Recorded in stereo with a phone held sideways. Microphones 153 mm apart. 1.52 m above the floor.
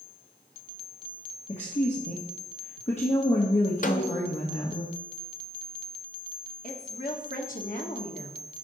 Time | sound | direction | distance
1.5 | a woman speaking | 45° left (ahead or behind) | 1.3 m
3.8 | a snare drum | 60° left (ahead or behind) | 0.6 m
6.6 | a woman speaking | 60° left (ahead or behind) | 1.4 m